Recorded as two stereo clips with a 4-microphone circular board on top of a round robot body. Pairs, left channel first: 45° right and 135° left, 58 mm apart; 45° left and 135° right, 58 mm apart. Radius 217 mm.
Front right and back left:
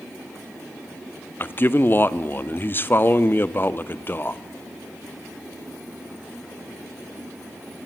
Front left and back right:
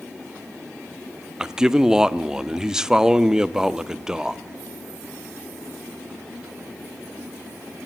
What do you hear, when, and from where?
1.4 s a man speaking: 60° right, 1.4 m